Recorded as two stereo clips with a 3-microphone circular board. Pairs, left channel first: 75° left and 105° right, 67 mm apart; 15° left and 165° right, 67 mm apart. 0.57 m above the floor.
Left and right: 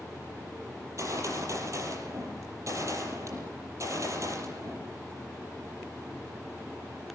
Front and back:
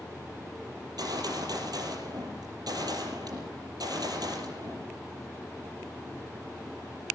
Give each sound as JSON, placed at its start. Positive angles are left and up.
{"t": 0.8, "sound": "a gunshot", "azimuth_deg": -145, "distance_m": 6.0}